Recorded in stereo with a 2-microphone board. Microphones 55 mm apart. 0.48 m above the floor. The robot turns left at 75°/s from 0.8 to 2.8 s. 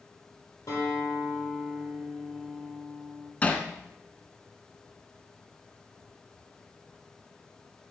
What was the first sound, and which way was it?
A guitar, 90° left.